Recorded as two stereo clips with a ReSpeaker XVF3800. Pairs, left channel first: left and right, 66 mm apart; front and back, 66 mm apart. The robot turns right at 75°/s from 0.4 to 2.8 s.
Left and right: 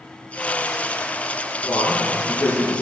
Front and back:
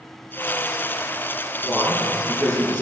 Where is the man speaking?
80° left, 4.5 m; by 2.8 s 170° left, 4.5 m.